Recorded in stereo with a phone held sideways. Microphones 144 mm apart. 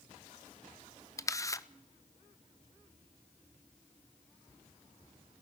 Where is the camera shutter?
20° left (ahead or behind), 0.7 m.